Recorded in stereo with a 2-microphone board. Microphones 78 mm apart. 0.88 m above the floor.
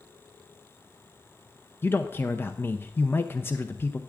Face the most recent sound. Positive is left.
turn(degrees=30)  # may be behind; listen again after turning